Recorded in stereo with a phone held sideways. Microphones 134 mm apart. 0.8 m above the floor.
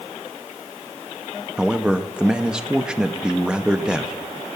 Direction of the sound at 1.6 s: 5° right (ahead or behind).